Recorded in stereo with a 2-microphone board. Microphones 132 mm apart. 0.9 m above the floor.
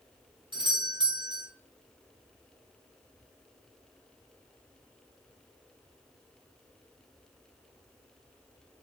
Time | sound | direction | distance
0.5 | a doorbell | 40° right (ahead or behind) | 0.8 m